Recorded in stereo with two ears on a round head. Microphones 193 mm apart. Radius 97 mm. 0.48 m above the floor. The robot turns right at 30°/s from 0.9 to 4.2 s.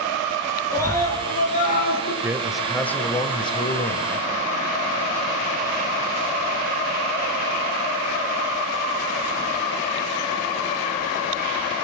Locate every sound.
0.7 s a scream: 15° left, 9 m; by 2.1 s 50° left, 9 m
2.2 s a man speaking: 10° right, 2 m; by 4.3 s 50° left, 2 m